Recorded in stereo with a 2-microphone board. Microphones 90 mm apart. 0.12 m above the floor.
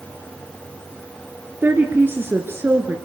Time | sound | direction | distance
1.6 | a woman speaking | 25° right (ahead or behind) | 1.7 m